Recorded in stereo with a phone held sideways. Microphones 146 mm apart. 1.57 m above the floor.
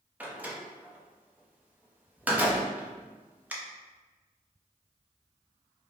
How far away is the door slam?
About 0.6 m.